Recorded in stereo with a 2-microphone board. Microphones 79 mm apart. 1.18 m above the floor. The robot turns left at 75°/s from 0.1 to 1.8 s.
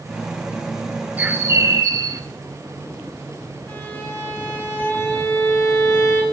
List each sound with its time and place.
1.2 s a bird: 25° right, 1.1 m; by 2.2 s 75° right, 1.1 m
3.7 s a violin: 30° left (ahead or behind), 4 m